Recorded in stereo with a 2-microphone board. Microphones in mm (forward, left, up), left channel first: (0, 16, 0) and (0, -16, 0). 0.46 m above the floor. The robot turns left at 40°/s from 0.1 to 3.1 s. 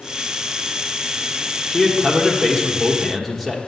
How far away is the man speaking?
About 1.3 m.